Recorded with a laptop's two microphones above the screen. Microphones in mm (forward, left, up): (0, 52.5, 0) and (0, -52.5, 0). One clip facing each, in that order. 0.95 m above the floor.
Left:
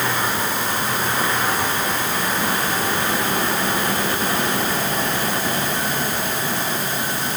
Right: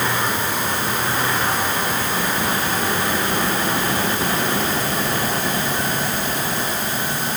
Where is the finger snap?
No finger snap in this recording.